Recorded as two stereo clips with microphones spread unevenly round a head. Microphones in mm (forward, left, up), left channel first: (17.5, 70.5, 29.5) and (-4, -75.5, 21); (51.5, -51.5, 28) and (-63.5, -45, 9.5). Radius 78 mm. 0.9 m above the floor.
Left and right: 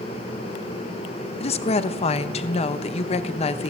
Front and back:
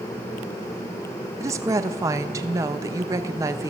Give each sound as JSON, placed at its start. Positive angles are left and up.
{"t": 1.4, "sound": "a woman speaking", "azimuth_deg": 125, "distance_m": 0.5}